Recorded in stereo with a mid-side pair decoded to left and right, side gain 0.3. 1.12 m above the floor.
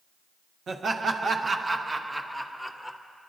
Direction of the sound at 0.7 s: 70° right.